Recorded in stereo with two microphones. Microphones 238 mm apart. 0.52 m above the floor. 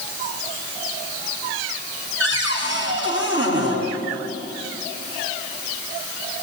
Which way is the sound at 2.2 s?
60° right (ahead or behind).